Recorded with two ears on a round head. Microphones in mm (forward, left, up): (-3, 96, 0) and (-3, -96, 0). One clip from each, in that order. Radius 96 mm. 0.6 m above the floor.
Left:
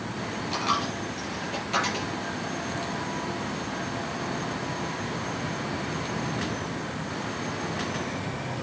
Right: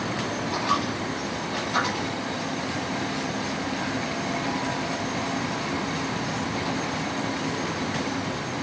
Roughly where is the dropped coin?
Left.